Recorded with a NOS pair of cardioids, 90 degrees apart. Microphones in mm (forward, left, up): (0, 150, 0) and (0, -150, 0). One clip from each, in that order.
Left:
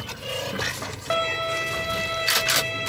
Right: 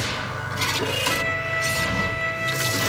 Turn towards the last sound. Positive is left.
turn(degrees=65)